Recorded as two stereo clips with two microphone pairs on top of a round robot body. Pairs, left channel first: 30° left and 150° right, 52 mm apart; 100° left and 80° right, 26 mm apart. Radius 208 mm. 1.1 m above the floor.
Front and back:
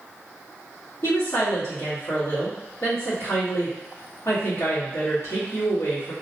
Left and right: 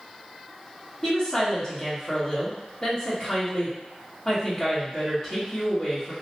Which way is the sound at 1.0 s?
35° left.